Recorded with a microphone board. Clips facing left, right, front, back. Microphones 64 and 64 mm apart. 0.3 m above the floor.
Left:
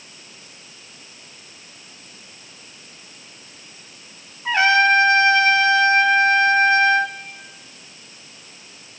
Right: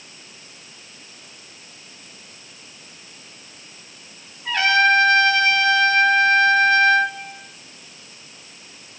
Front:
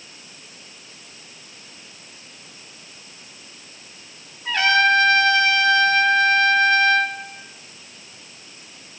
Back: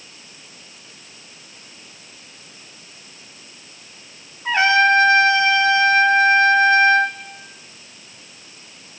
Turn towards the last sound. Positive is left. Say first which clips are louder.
# left 1 dB, back 2 dB
turn(degrees=135)